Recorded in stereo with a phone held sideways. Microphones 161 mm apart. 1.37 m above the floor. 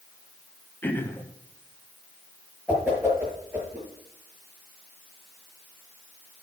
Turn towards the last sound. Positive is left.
turn(degrees=-10)  # may be behind; listen again after turning